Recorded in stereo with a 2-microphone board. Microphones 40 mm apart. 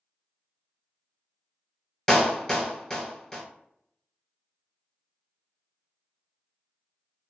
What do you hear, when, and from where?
2.1 s a clap: 15° left (ahead or behind), 1.3 m